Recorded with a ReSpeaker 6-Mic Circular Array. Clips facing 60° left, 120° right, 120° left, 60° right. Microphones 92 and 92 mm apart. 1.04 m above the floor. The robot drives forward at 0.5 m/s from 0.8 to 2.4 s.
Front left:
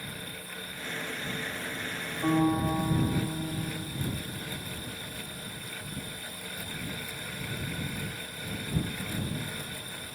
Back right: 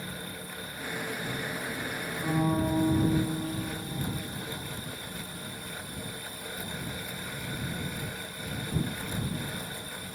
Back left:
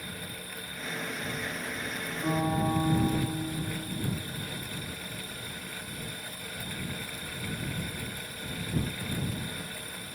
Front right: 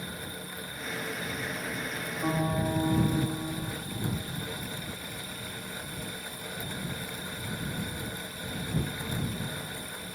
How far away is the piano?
About 3 m.